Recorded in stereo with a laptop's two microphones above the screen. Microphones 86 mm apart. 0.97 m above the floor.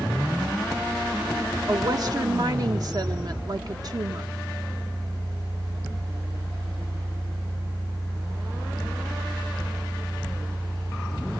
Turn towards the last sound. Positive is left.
turn(degrees=-45)  # may be behind; listen again after turning